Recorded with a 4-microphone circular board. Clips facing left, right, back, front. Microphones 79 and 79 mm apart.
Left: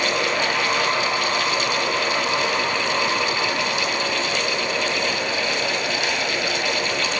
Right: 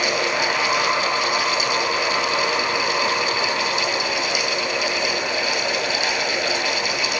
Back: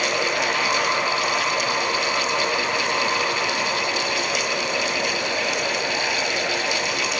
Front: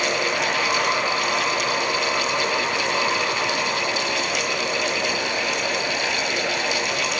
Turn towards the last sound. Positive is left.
No sound to turn to.